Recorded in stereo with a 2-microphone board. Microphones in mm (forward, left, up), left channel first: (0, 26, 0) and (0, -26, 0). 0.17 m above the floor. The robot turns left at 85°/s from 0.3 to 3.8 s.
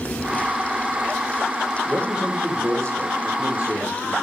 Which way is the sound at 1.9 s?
10° left.